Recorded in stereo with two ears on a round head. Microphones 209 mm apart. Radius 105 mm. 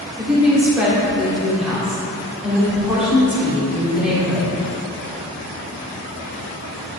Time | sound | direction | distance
0.2 | a woman speaking | 5° right (ahead or behind) | 1.9 m